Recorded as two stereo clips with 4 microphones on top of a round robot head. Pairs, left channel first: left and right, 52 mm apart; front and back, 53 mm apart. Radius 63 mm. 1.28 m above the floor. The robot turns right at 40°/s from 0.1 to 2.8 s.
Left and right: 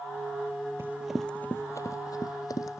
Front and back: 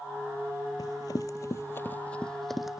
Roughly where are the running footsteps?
Ahead right.